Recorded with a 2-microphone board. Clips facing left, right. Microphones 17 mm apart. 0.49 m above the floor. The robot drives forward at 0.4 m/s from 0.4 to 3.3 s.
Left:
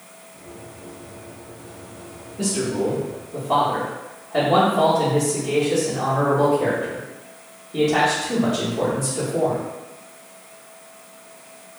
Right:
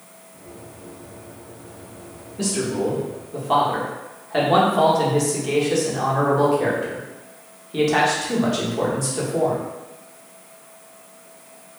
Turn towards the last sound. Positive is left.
turn(degrees=-40)  # may be behind; listen again after turning